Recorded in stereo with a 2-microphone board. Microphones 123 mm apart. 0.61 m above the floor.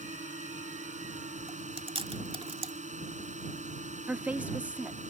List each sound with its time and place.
0.0 s a drone: 75° right (ahead or behind)
1.5 s chewing: 50° right (ahead or behind)
4.1 s a woman speaking: 10° right (ahead or behind)